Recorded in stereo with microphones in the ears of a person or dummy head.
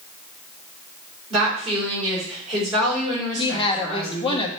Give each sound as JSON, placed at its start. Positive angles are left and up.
{"t": 1.3, "sound": "a woman speaking", "side_deg": -30, "distance_m": 4.5}
{"t": 3.4, "sound": "a woman speaking", "side_deg": 25, "distance_m": 1.3}